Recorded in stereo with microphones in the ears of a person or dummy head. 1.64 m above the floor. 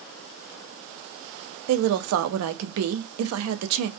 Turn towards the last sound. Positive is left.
turn(degrees=-80)